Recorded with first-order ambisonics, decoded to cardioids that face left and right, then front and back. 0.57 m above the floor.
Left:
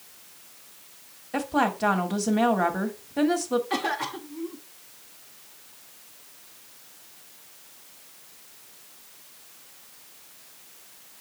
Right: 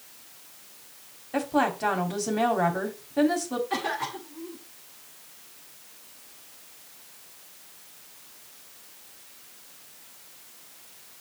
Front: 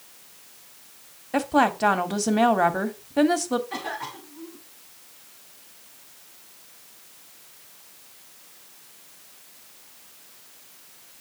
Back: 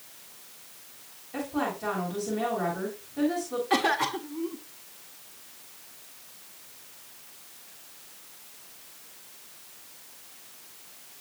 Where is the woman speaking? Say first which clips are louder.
Even, front 10 dB; 10° left, 1.3 m.